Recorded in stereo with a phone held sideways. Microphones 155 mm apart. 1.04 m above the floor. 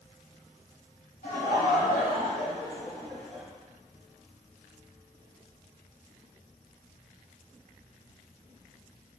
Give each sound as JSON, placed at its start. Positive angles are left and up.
{"t": 1.2, "sound": "laughter", "side_deg": 65, "distance_m": 1.9}